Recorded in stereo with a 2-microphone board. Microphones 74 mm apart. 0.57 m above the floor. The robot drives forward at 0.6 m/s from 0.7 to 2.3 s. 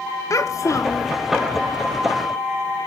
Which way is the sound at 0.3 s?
45° left (ahead or behind).